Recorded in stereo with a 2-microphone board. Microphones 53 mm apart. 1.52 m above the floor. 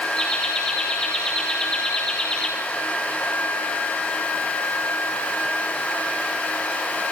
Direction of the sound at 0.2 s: 20° left (ahead or behind).